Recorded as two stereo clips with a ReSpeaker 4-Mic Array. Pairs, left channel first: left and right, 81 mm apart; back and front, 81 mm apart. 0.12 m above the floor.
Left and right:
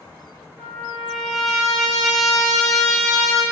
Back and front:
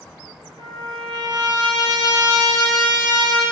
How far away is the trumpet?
About 1.9 m.